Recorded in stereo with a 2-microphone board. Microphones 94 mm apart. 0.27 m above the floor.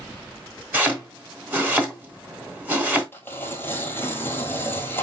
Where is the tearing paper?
20° left (ahead or behind), 1.2 m.